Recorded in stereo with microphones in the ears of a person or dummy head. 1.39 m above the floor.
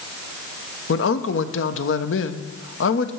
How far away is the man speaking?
About 1.0 m.